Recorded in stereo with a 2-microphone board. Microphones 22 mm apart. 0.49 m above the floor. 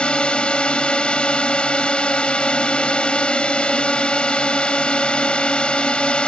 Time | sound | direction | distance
0.0 | a drone | 50° left (ahead or behind) | ?